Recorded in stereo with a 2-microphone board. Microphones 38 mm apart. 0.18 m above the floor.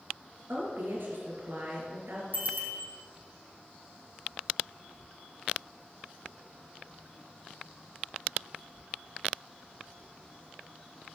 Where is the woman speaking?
65° right (ahead or behind), 3.5 m.